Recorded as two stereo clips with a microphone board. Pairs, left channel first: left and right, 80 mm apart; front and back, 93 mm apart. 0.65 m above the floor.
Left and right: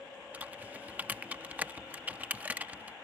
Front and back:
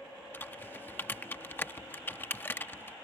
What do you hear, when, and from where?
0.3 s typing on a keyboard: 45° right